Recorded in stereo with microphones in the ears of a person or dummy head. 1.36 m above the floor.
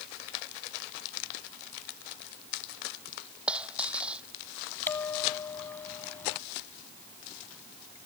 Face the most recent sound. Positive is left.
turn(degrees=10)  # may be behind; listen again after turning